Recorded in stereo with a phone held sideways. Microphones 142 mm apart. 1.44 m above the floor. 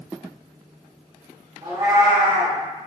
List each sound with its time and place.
1.6 s a cat meowing: 25° right (ahead or behind), 1.6 m